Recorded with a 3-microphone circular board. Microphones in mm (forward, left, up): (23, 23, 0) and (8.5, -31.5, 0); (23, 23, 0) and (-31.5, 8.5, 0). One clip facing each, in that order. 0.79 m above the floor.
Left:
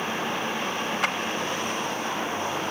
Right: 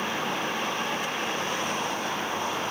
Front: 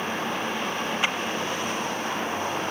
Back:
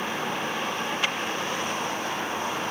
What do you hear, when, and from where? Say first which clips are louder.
1.0 s a clap: left 5 dB, front 2 dB; 85° left, 3.5 m